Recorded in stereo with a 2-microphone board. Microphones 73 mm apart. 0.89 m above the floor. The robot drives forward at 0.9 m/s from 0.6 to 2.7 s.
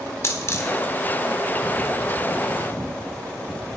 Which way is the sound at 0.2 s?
45° left (ahead or behind).